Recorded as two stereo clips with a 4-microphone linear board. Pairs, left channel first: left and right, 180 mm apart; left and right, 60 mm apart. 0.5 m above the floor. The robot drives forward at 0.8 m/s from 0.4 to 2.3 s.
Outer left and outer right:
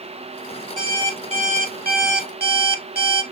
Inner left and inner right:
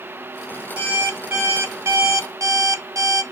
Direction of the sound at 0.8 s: 25° right (ahead or behind).